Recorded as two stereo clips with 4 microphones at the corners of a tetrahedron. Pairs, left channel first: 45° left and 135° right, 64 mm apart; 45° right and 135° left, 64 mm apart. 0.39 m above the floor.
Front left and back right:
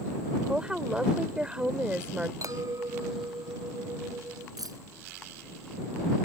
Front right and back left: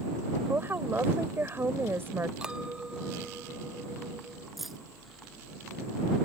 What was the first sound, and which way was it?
A woman speaking, 155° left.